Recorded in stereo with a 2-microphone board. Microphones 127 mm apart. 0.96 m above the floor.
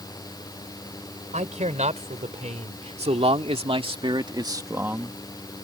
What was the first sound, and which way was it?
A man speaking, 65° right (ahead or behind).